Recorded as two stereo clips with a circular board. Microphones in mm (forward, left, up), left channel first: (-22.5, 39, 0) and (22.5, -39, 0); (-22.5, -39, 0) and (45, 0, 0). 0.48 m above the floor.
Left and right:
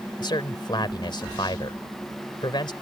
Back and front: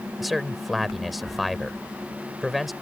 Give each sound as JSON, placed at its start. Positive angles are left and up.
{"t": 0.2, "sound": "a man speaking", "azimuth_deg": 120}